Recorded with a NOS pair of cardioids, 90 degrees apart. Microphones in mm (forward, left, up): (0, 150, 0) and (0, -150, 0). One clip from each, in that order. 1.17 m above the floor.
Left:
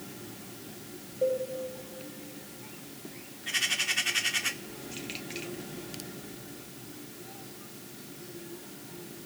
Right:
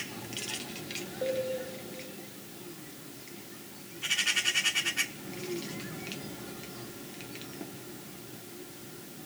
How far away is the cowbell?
About 3 m.